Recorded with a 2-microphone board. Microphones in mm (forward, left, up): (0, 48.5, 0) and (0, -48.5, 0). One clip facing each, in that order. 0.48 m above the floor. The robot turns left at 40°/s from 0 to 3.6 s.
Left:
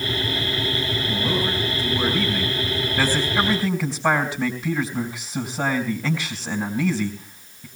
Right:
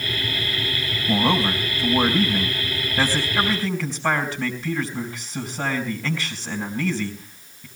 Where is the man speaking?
95° right, 4 m; by 7.7 s 165° left, 4 m.